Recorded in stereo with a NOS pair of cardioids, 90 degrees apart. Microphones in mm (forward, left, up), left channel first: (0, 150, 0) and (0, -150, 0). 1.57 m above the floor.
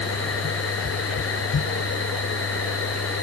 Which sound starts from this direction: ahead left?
A machine running, at 0.0 s.